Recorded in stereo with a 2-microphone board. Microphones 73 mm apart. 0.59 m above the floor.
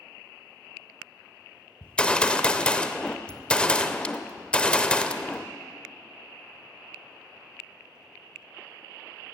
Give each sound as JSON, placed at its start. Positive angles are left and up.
{"t": 1.8, "sound": "a gunshot", "side_deg": 15, "distance_m": 0.6}